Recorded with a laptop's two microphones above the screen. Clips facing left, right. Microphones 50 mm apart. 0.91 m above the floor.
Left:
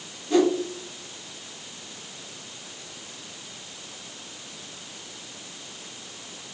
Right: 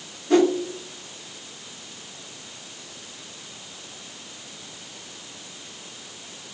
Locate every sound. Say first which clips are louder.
0.3 s a whoosh: right 2 dB; 55° right (ahead or behind), 0.6 m